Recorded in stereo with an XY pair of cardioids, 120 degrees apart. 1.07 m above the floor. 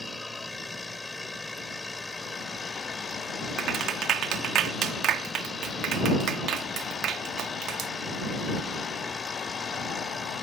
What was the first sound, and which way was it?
A machine running, 10° left.